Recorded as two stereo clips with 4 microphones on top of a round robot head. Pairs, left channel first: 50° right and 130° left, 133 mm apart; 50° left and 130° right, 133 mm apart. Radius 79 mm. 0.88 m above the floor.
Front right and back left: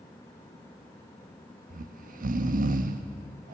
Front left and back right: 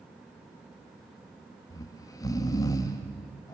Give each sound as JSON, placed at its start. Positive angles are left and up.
{"t": 1.7, "sound": "snoring", "azimuth_deg": 115, "distance_m": 0.9}